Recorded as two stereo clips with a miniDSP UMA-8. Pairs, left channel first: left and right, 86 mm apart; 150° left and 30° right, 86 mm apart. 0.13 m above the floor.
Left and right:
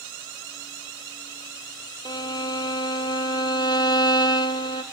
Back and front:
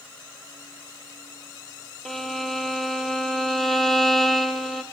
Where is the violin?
60° left, 0.9 m.